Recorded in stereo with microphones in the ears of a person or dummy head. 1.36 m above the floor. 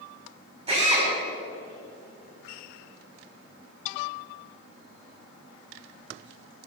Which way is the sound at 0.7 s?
30° right (ahead or behind).